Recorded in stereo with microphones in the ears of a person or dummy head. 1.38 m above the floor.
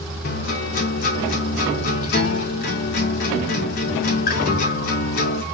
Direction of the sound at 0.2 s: 35° left (ahead or behind).